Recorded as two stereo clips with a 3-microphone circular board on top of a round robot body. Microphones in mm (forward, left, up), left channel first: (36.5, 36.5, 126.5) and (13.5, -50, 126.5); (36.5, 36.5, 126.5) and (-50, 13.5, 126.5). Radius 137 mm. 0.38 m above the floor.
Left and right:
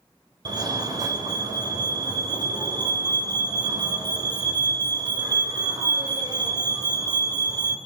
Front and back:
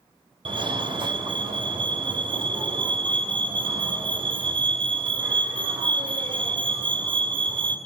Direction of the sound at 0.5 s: 150° right.